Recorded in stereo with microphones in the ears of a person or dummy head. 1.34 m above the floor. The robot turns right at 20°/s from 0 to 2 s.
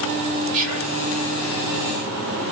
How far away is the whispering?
About 2.0 m.